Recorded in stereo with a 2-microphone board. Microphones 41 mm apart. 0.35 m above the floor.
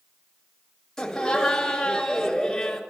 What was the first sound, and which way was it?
Laughter, 10° left (ahead or behind).